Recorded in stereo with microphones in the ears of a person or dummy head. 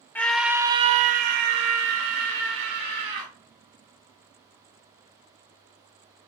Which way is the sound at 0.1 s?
10° left (ahead or behind).